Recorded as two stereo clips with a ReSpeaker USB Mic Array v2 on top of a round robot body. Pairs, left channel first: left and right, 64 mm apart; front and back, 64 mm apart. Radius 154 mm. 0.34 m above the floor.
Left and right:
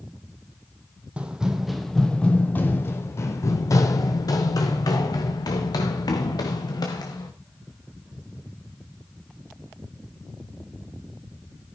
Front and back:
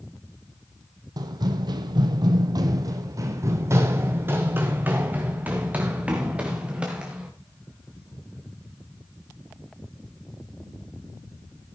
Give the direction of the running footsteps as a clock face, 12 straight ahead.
5 o'clock.